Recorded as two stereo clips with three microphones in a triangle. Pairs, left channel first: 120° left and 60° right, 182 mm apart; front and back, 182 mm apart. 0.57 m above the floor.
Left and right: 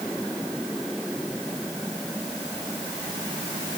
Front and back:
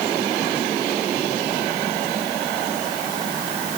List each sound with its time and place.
Only background noise.